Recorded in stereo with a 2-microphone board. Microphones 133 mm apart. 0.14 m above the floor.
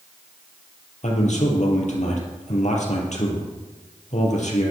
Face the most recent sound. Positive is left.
turn(degrees=65)  # may be behind; listen again after turning